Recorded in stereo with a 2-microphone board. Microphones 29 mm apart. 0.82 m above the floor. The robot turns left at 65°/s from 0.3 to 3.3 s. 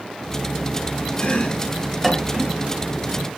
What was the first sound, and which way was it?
Chopping, 50° left (ahead or behind).